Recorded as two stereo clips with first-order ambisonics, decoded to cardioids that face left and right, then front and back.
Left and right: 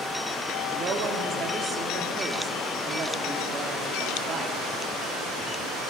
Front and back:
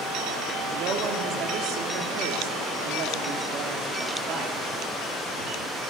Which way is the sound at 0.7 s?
145° right.